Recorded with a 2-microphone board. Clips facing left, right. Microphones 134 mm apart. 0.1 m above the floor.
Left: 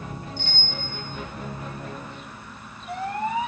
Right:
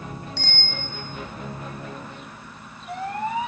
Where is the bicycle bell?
80° right, 4 m.